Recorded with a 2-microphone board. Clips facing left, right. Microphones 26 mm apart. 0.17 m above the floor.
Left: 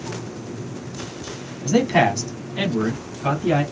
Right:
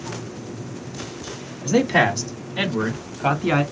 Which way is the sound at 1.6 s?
Centre (ahead or behind).